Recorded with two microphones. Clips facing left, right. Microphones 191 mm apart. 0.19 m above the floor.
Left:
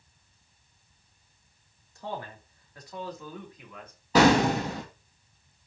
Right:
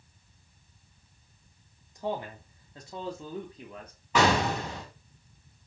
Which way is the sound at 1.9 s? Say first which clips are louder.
Right 4 dB; 15° right (ahead or behind).